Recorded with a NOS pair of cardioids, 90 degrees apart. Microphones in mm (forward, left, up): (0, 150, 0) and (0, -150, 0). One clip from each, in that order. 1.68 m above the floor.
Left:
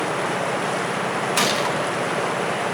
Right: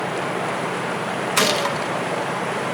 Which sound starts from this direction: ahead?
A gunshot, at 1.4 s.